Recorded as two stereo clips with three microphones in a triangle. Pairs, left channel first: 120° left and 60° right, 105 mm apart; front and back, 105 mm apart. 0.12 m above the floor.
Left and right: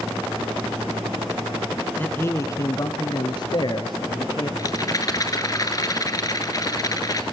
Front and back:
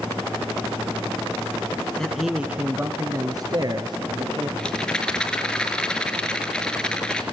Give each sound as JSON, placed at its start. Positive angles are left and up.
{"t": 2.0, "sound": "a man speaking", "azimuth_deg": 75, "distance_m": 1.2}
{"t": 4.6, "sound": "a rattle", "azimuth_deg": 80, "distance_m": 2.0}